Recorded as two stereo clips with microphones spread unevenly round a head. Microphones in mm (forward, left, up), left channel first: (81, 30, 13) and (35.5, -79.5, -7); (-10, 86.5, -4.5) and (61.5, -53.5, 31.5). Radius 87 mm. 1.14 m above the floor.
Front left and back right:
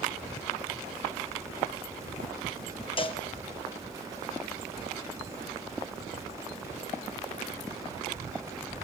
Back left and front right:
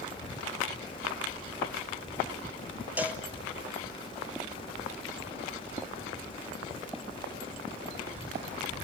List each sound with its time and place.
3.0 s a cowbell: 20° left, 1.8 m